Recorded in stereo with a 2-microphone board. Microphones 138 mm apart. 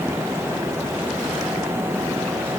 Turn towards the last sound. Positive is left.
No sound to turn to.